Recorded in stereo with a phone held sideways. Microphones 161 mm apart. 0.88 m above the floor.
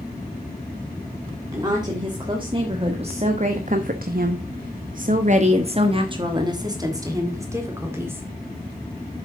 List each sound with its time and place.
1.5 s a woman speaking: 25° right (ahead or behind), 1.8 m; by 8.2 s 15° right (ahead or behind), 2 m